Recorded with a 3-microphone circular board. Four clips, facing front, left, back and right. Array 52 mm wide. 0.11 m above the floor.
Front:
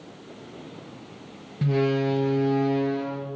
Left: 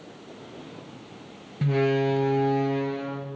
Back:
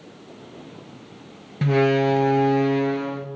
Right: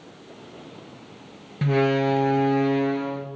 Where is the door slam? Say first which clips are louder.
Right 2 dB, back 5 dB; 145° right, 1.3 m.